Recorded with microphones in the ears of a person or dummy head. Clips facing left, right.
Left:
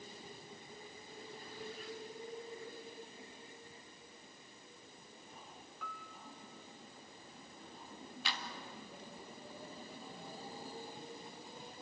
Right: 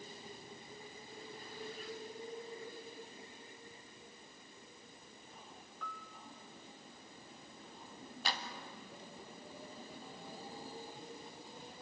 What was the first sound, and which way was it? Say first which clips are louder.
A piano: right 1 dB; centre (ahead or behind).